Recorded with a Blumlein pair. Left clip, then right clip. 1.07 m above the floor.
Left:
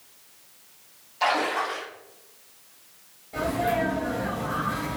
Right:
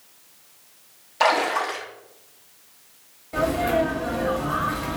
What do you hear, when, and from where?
1.2 s a splash: 50° right, 0.9 m
3.3 s a sneeze: 25° right, 1.2 m